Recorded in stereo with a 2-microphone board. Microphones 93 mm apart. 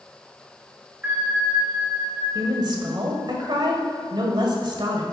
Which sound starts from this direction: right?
A woman speaking, at 2.4 s.